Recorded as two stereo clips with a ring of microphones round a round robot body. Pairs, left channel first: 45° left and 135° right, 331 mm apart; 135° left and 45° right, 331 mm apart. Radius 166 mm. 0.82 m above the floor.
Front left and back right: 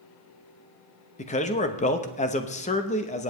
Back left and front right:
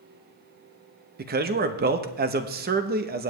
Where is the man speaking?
10° right, 0.9 m.